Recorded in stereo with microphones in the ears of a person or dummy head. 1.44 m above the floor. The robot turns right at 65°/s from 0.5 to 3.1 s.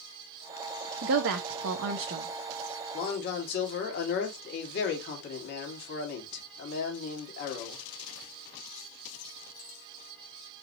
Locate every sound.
1.0 s a woman speaking: 120° right, 0.5 m; by 2.3 s 40° right, 0.5 m
2.9 s a man speaking: 45° left (ahead or behind), 1.7 m; by 7.8 s 55° left (ahead or behind), 1.7 m